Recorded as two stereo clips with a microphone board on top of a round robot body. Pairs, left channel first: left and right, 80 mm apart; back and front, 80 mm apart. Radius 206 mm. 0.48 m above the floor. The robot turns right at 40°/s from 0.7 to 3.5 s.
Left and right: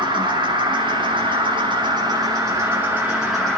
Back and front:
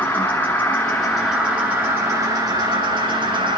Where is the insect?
110° right, 2 m; by 3.6 s 5° left, 2 m.